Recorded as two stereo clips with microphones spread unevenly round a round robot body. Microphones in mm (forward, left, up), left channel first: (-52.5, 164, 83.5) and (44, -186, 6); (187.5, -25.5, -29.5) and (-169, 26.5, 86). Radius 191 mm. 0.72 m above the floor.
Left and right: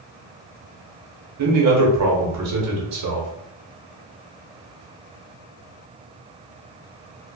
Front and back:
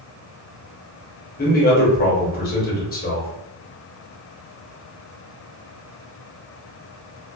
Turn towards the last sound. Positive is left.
turn(degrees=-55)